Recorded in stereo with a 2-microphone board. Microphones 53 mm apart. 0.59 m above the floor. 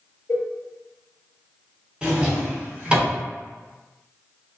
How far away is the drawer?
About 1.1 m.